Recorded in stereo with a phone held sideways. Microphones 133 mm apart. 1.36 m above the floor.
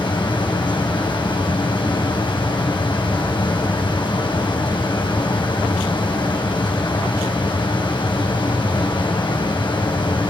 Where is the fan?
35° left (ahead or behind), 4 m.